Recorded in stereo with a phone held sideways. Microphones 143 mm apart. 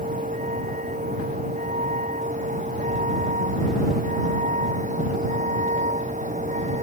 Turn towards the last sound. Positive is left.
turn(degrees=-60)  # may be behind; listen again after turning